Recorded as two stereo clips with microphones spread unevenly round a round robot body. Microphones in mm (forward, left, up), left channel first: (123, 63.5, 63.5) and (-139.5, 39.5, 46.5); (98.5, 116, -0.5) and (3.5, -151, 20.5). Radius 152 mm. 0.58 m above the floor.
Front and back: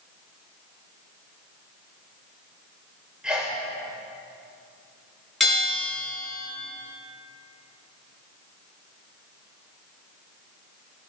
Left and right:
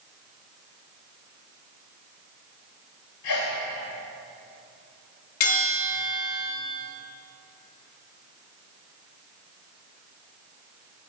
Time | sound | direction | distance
3.2 | a sneeze | 100° left | 2 m
5.4 | a bell | 95° left | 7 m